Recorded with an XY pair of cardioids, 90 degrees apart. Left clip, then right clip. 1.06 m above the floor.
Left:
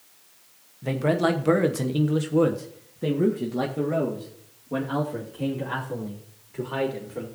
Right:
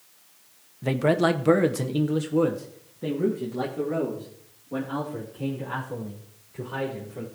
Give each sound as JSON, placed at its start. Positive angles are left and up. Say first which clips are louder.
{"t": 0.8, "sound": "a man speaking", "louder": "right 1 dB", "azimuth_deg": -35, "distance_m": 1.0}